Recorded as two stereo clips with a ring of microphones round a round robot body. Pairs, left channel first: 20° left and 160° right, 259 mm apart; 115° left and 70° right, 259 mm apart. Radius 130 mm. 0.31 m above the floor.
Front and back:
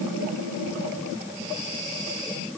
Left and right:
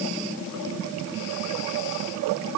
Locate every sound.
Only background noise.